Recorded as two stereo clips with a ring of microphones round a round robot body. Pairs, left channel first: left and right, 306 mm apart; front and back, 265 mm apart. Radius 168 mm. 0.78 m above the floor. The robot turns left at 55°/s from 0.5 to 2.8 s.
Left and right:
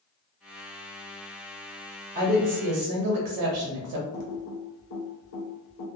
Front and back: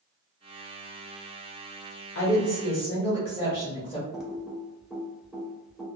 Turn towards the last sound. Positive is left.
turn(degrees=90)